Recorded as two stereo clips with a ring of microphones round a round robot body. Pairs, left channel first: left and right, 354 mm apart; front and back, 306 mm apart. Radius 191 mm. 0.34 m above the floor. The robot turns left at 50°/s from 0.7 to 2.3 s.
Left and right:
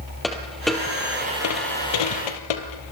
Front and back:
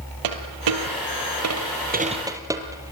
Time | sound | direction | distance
0.2 | a dropped coin | straight behind | 3 m